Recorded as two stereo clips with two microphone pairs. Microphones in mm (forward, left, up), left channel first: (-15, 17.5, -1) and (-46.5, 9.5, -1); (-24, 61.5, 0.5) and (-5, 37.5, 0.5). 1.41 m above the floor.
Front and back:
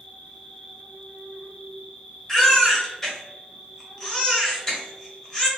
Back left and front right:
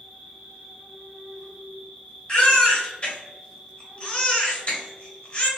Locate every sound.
0.0 s an insect: 10° left, 1.0 m
2.3 s a baby crying: 90° left, 1.5 m